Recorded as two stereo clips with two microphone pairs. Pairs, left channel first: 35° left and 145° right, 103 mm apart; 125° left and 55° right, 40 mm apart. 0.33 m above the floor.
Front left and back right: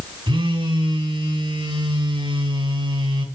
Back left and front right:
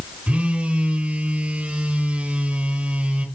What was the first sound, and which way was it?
A phone buzzing, 110° right.